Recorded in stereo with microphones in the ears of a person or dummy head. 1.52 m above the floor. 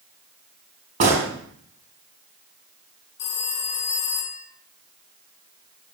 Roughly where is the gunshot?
Right.